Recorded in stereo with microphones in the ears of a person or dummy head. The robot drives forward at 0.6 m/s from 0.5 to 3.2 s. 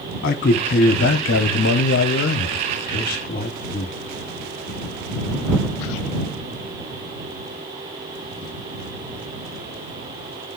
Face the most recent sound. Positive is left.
turn(degrees=40)  # may be behind; listen again after turning